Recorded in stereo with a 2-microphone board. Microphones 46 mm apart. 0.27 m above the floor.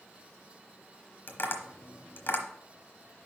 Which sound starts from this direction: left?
Tapping, at 1.3 s.